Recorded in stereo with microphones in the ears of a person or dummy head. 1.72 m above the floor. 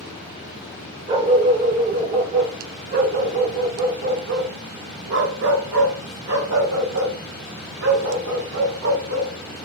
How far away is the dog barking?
About 2.5 m.